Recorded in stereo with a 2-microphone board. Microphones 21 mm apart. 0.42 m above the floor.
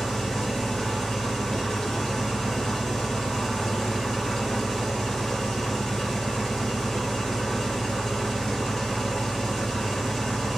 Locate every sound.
0.0 s an engine running: 25° left (ahead or behind), 1.9 m